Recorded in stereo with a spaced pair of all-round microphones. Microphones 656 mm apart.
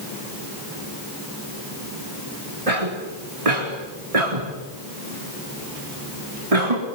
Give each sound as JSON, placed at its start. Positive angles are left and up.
{"t": 2.7, "sound": "a cough", "side_deg": -60, "distance_m": 4.0}